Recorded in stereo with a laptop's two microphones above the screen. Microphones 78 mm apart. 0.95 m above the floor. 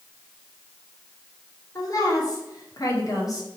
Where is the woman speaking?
45° left (ahead or behind), 1.8 m.